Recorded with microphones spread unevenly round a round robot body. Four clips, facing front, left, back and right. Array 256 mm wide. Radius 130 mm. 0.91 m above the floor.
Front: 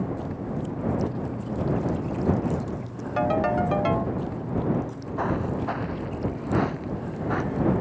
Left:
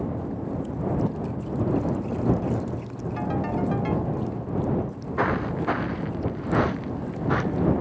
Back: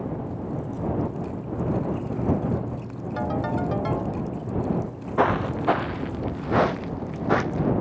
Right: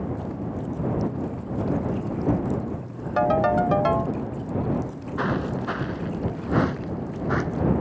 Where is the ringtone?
75° right.